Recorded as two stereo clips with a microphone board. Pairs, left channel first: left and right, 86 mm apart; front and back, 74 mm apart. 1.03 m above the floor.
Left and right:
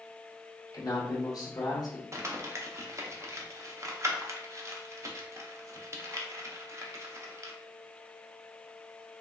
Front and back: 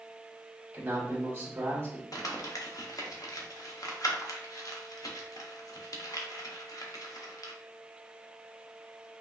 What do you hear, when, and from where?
0.7 s a man speaking: 120° left, 1.2 m
2.1 s crumpling: 35° right, 0.7 m